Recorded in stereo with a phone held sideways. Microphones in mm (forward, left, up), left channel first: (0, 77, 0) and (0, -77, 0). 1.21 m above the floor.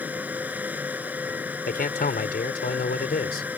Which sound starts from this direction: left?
A man speaking, at 1.7 s.